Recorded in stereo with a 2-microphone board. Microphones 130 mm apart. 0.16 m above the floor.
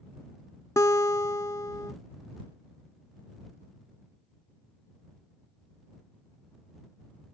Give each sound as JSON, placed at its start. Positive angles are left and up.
{"t": 0.8, "sound": "a guitar", "side_deg": 25}